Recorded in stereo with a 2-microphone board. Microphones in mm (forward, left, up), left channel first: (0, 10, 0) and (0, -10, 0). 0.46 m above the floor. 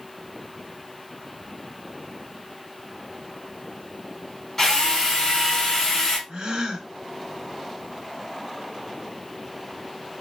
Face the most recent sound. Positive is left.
turn(degrees=-50)  # may be behind; listen again after turning